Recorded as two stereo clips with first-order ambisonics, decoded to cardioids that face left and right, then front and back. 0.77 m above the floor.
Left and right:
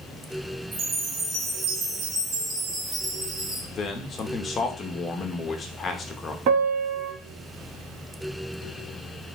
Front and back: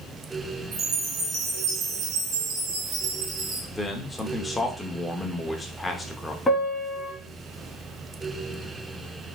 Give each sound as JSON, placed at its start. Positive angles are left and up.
{"t": 0.7, "sound": "a chime", "azimuth_deg": -145, "distance_m": 2.0}
{"t": 3.7, "sound": "a man speaking", "azimuth_deg": 60, "distance_m": 0.6}
{"t": 6.5, "sound": "a piano", "azimuth_deg": -75, "distance_m": 1.0}